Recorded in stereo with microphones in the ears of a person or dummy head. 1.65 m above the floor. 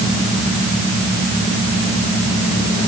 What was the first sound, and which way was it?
Only background noise.